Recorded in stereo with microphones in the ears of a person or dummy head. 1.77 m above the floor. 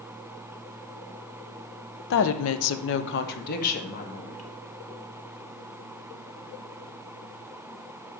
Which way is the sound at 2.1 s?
55° left (ahead or behind).